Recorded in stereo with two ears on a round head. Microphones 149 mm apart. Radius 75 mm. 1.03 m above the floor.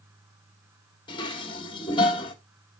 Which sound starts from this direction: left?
Dishes clattering, at 1.1 s.